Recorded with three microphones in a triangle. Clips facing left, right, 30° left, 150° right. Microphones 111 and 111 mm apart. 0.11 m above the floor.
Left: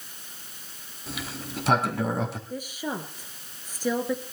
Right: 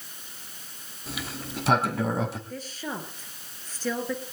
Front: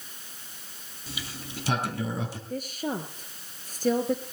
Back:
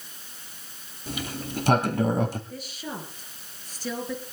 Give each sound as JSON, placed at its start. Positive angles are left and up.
{"t": 1.1, "sound": "a sliding door", "azimuth_deg": 180, "distance_m": 2.5}
{"t": 2.5, "sound": "a woman speaking", "azimuth_deg": 20, "distance_m": 2.5}